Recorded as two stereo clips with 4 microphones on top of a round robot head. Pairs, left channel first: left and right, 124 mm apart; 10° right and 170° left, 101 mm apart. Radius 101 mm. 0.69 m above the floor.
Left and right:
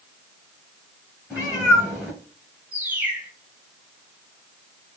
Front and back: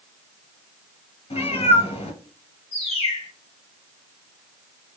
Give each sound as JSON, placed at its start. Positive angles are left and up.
{"t": 1.3, "sound": "a cat meowing", "azimuth_deg": 0, "distance_m": 2.5}
{"t": 2.7, "sound": "a bird", "azimuth_deg": -10, "distance_m": 2.0}